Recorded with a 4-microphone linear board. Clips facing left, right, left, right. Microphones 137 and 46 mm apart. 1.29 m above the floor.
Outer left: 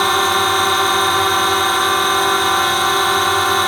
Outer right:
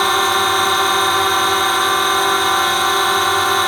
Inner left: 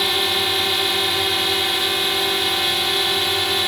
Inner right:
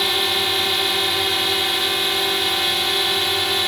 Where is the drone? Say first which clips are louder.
Even, even; centre (ahead or behind).